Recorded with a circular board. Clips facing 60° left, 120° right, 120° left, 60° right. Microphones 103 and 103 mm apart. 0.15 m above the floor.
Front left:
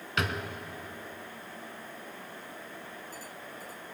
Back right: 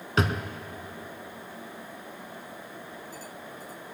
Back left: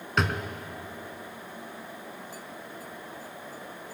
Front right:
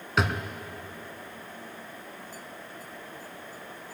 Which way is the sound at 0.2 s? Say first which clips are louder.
Back right 5 dB, front right 1 dB; 145° right.